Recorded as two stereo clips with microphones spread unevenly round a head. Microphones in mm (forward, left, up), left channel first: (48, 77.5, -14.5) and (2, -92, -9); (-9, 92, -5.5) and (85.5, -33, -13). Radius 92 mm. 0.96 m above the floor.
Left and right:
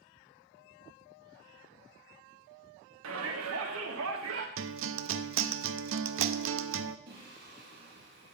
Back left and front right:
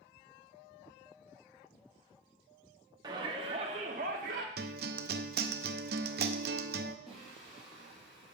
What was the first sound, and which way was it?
A shout, 125° right.